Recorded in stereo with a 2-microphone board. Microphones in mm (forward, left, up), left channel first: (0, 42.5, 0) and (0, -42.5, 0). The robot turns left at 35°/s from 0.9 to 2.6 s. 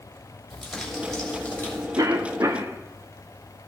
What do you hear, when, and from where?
0.5 s crumpling: straight behind, 3 m; by 1.9 s 150° left, 3 m
2.0 s a cough: 45° right (ahead or behind), 0.8 m; by 2.8 s 35° right (ahead or behind), 0.8 m